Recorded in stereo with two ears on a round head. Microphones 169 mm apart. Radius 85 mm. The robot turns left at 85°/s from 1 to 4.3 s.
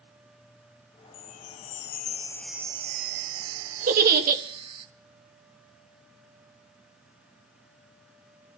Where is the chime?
115° left, 0.5 m; by 4.9 s 155° right, 0.5 m.